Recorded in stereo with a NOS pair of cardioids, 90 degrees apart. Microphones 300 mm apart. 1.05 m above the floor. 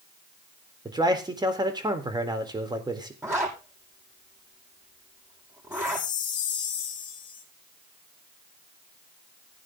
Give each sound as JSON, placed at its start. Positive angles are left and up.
{"t": 0.8, "sound": "a man speaking", "azimuth_deg": -15, "distance_m": 3.5}
{"t": 3.2, "sound": "a zipper", "azimuth_deg": -10, "distance_m": 9.0}
{"t": 5.7, "sound": "a chime", "azimuth_deg": 55, "distance_m": 5.0}